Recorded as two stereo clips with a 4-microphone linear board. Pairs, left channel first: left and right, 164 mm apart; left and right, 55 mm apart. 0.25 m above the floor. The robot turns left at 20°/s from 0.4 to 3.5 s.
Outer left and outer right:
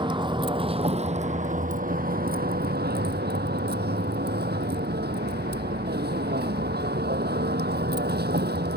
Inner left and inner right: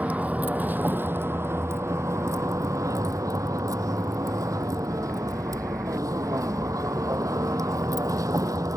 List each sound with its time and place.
0.0 s a vehicle: 30° right; by 8.8 s 90° right